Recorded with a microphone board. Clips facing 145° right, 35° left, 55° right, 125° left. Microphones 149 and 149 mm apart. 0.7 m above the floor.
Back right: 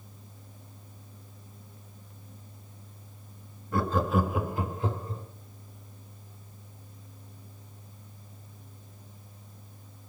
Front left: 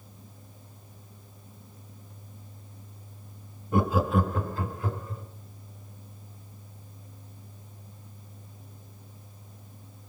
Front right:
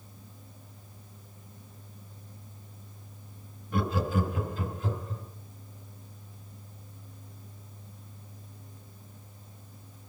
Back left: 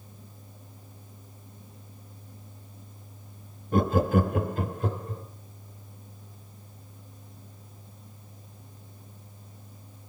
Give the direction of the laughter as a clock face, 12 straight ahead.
9 o'clock.